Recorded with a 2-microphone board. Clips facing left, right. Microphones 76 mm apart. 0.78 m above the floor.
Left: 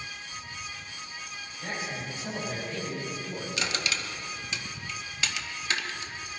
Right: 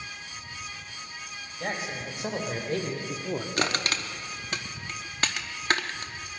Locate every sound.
1.6 s a man speaking: 70° right (ahead or behind), 3.5 m; by 3.5 s 60° right (ahead or behind), 1.4 m
3.6 s crushing: 50° right (ahead or behind), 0.8 m